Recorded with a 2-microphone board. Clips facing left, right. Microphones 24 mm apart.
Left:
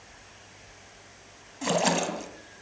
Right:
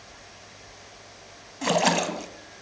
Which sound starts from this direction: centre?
A splash, at 1.6 s.